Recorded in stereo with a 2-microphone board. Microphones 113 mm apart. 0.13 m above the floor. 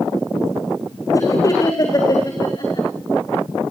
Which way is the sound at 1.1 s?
30° left (ahead or behind).